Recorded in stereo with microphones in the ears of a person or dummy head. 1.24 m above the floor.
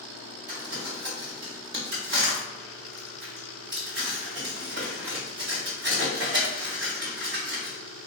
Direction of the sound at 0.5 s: 60° right (ahead or behind).